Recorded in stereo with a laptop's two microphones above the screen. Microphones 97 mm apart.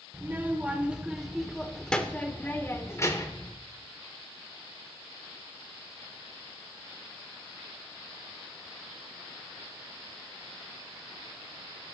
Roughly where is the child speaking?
Right.